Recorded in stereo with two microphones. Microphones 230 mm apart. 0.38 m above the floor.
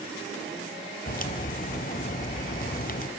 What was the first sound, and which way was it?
A crack, 40° left (ahead or behind).